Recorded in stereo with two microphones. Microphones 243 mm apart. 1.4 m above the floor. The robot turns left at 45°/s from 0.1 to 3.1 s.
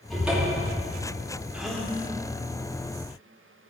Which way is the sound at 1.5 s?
5° right (ahead or behind).